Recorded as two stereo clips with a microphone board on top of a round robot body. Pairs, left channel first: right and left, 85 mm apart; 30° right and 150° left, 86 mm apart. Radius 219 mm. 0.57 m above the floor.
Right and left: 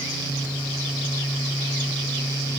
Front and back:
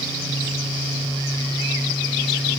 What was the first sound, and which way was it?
Only background noise.